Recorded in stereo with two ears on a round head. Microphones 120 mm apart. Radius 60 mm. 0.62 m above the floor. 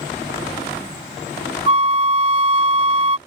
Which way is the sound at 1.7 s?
40° right (ahead or behind).